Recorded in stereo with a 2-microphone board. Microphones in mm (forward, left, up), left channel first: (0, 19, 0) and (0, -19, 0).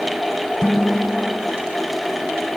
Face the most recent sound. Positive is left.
turn(degrees=-15)  # may be behind; listen again after turning